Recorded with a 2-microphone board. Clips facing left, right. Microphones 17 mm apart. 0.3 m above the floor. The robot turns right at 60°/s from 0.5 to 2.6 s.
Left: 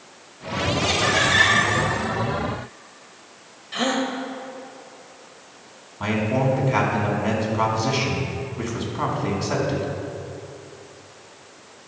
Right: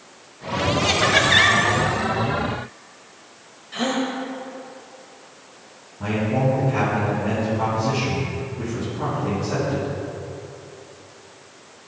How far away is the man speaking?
About 3 m.